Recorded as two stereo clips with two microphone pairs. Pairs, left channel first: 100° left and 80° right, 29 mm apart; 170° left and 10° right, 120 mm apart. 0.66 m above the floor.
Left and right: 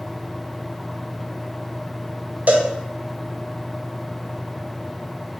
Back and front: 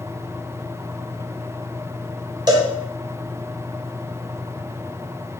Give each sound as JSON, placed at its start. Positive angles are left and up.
{"t": 2.5, "sound": "a cowbell", "azimuth_deg": -60, "distance_m": 0.6}